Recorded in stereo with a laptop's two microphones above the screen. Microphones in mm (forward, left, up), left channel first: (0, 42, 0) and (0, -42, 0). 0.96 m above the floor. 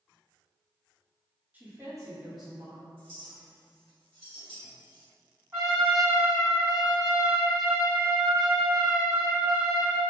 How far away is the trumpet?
About 1.6 m.